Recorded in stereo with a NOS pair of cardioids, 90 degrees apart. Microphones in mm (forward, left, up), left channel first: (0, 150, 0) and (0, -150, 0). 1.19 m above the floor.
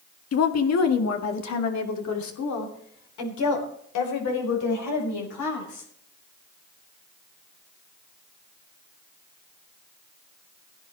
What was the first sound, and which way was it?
A woman speaking, 55° left.